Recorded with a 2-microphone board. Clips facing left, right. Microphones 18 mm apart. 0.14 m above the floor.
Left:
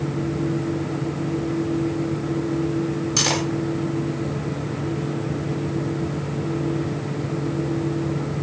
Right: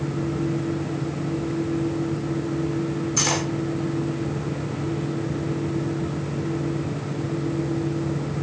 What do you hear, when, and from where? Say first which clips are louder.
3.2 s cutlery clinking: left 2 dB; 55° left (ahead or behind), 3 m